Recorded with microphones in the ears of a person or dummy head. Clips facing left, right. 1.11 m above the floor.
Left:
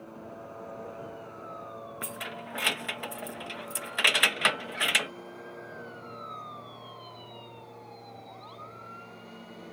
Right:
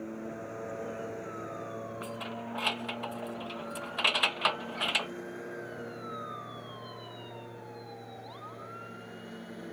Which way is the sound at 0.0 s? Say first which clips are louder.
Right 5 dB; 25° right (ahead or behind).